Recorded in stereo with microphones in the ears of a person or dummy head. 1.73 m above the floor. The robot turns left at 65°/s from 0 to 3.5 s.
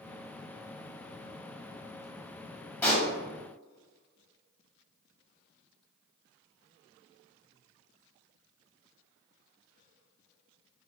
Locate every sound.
2.8 s a pop: 15° left (ahead or behind), 1.0 m; by 3.1 s centre (ahead or behind), 1.0 m